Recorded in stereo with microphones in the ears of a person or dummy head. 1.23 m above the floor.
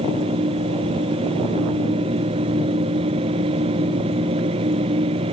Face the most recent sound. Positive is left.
turn(degrees=-30)  # may be behind; listen again after turning